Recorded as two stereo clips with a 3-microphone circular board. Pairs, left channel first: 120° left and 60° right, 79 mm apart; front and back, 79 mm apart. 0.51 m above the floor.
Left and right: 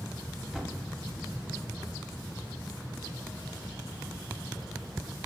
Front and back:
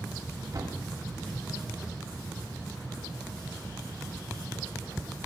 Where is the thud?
145° right, 1.6 m.